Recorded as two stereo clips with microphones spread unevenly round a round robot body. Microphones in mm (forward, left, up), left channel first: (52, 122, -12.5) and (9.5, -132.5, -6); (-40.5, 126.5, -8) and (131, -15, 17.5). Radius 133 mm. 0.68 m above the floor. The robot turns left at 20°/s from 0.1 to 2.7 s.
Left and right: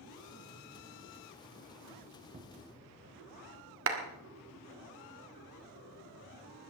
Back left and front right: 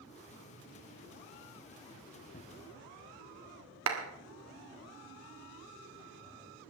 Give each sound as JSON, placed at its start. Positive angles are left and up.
{"t": 2.3, "sound": "a cupboard door", "azimuth_deg": -160, "distance_m": 0.6}
{"t": 3.9, "sound": "a clap", "azimuth_deg": -65, "distance_m": 1.7}